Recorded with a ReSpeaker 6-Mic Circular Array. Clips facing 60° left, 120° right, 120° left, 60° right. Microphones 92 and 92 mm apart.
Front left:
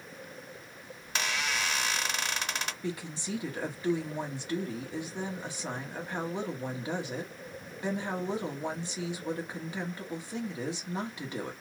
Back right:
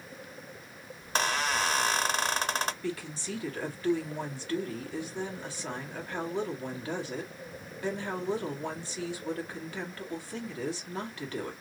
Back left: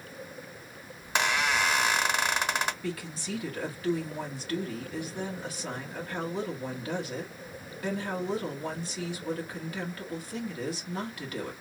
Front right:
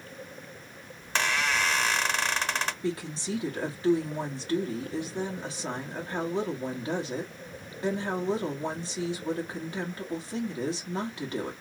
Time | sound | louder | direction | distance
1.0 | a squeak | back right 5 dB, back left 1 dB | 165° right | 0.5 m
2.8 | a woman speaking | back right 1 dB, front right 4 dB | 5° right | 1.3 m